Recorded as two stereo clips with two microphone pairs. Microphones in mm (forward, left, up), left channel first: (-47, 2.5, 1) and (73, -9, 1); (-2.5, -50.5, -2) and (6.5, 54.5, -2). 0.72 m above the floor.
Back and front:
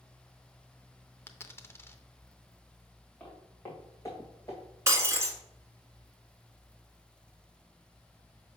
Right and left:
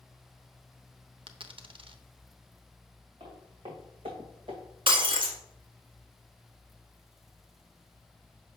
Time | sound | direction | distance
1.3 | a dropped coin | 105° left | 0.6 m
3.2 | footsteps | 100° left | 2.5 m
4.9 | breaking glass | 60° left | 1.5 m